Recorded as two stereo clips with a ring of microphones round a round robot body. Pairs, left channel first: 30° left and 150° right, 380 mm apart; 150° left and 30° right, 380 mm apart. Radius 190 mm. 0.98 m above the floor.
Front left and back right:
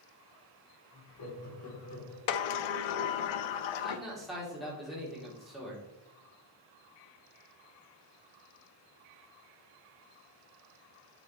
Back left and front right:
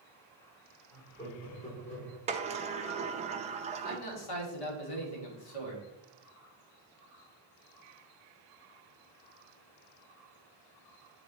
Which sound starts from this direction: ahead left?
A sliding door, at 2.3 s.